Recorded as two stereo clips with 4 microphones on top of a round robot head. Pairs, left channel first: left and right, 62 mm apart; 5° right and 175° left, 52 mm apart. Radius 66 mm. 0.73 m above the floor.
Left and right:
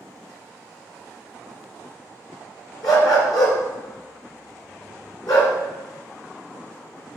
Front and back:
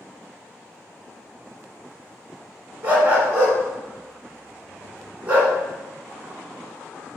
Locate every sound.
2.8 s a dog barking: 115° left, 2 m